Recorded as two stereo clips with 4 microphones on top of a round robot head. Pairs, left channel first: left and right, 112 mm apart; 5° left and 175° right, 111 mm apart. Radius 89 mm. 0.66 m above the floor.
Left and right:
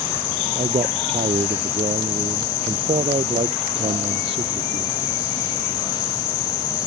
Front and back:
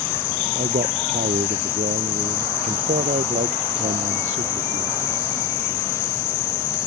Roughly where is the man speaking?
Behind right.